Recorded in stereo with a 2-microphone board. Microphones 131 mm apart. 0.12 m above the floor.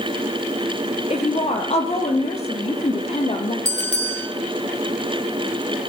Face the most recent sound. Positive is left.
turn(degrees=-65)  # may be behind; listen again after turning